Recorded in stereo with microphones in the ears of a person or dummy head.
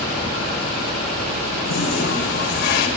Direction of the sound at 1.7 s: 75° left (ahead or behind).